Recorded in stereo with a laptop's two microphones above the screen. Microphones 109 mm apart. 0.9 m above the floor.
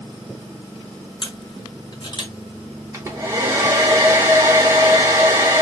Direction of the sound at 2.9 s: 30° right (ahead or behind).